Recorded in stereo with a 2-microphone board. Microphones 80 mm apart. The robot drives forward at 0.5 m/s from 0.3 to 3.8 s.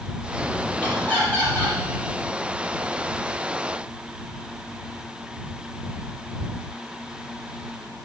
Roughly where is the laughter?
Centre.